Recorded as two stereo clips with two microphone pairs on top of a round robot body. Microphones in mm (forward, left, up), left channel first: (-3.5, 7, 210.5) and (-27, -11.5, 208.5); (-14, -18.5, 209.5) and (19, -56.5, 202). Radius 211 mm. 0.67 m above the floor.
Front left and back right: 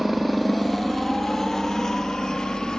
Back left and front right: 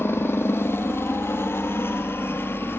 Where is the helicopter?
130° left; by 2.8 s 95° left.